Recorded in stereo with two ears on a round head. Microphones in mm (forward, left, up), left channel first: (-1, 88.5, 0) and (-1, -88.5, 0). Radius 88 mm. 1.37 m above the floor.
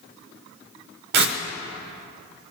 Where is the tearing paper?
55° right (ahead or behind), 0.6 m.